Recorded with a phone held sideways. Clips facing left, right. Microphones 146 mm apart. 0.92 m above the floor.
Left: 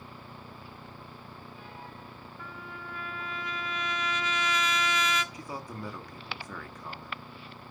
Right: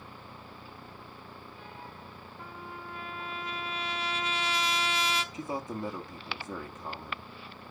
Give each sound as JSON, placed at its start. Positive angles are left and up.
{"t": 2.4, "sound": "a trumpet", "side_deg": -30, "distance_m": 0.9}
{"t": 5.3, "sound": "a man speaking", "side_deg": -25, "distance_m": 1.2}